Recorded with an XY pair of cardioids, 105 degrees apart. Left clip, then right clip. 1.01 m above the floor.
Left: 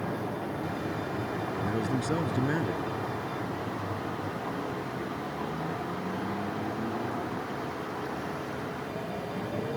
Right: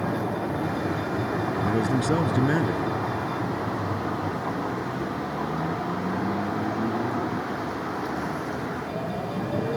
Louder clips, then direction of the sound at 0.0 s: Right 6 dB; 45° right.